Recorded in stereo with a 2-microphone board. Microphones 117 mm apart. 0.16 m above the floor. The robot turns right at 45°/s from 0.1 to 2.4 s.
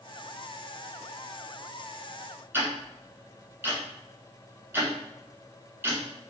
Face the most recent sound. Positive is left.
turn(degrees=-20)  # may be behind; listen again after turning